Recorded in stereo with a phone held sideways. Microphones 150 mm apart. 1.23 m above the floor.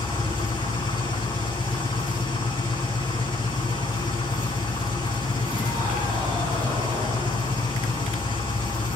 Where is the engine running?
35° left (ahead or behind), 4.5 m.